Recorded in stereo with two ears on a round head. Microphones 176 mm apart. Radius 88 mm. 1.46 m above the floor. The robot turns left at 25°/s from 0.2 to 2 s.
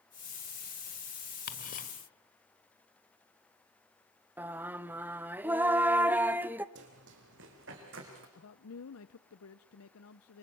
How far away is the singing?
About 0.7 m.